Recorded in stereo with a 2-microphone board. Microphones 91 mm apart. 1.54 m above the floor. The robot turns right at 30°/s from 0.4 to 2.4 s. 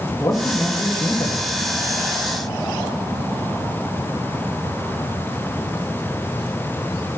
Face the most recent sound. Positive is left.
turn(degrees=100)